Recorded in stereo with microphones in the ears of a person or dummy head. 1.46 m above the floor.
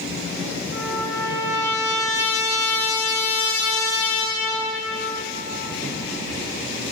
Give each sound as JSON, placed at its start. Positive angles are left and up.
{"t": 0.7, "sound": "a trumpet", "side_deg": 60, "distance_m": 2.5}